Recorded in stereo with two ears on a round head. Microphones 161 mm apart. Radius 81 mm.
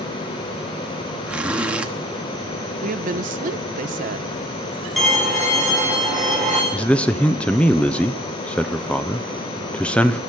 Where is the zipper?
5° right (ahead or behind), 1.1 m.